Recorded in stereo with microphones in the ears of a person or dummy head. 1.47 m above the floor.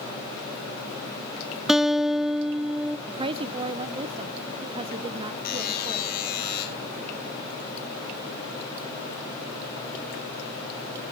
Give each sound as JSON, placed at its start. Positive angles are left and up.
{"t": 1.7, "sound": "a guitar", "side_deg": 0, "distance_m": 0.8}
{"t": 3.1, "sound": "a woman speaking", "side_deg": -30, "distance_m": 1.2}
{"t": 5.5, "sound": "a buzzer", "side_deg": 60, "distance_m": 5.0}